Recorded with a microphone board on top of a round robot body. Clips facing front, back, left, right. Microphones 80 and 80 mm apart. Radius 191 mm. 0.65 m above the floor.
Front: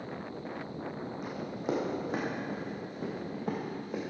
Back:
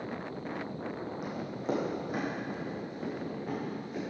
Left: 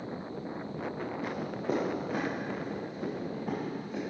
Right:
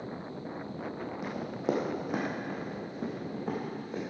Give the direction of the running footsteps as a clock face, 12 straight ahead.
3 o'clock.